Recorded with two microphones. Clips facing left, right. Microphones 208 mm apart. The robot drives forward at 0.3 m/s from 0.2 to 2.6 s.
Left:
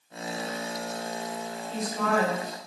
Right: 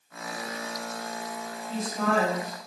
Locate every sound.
1.7 s a woman speaking: centre (ahead or behind), 1.0 m